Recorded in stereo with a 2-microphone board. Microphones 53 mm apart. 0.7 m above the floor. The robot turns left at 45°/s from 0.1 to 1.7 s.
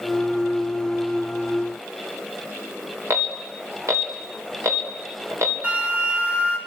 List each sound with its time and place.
3.1 s an alarm: 60° right (ahead or behind), 3 m
5.6 s a flute: 25° right (ahead or behind), 3 m